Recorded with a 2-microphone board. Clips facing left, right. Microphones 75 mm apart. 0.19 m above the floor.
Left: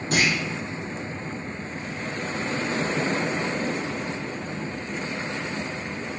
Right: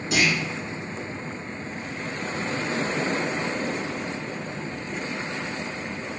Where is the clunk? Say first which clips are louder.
Even; 45° left (ahead or behind), 1.0 m.